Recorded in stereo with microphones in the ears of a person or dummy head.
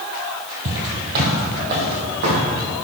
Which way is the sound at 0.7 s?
45° right (ahead or behind).